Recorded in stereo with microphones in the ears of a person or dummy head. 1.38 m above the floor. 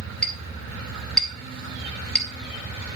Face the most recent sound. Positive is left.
turn(degrees=0)  # may be behind; listen again after turning